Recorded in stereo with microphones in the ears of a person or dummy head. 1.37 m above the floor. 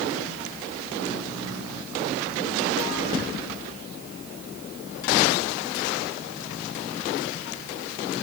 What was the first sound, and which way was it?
Only background noise.